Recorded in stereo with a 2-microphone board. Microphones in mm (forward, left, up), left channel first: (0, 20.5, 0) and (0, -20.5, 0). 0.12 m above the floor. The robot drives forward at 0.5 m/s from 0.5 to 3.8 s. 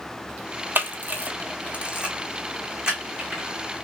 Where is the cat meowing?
I don't hear a cat meowing.